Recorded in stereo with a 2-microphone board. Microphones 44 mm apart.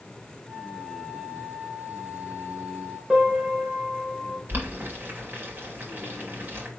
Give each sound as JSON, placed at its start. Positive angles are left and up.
{"t": 0.5, "sound": "a flute", "side_deg": -45, "distance_m": 2.0}
{"t": 3.1, "sound": "a piano", "side_deg": -10, "distance_m": 2.5}
{"t": 4.5, "sound": "boiling", "side_deg": -45, "distance_m": 2.5}